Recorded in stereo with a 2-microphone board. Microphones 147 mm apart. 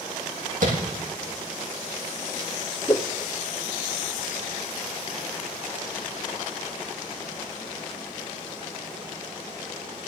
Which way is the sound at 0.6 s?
65° right (ahead or behind).